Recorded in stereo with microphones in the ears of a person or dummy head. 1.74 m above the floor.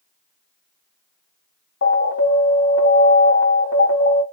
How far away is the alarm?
About 5 m.